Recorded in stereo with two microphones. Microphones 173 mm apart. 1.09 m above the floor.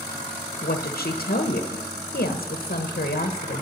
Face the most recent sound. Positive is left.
turn(degrees=60)  # may be behind; listen again after turning